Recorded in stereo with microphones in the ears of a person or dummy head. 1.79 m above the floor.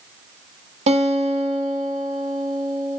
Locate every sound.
0.9 s a guitar: 40° right (ahead or behind), 1.2 m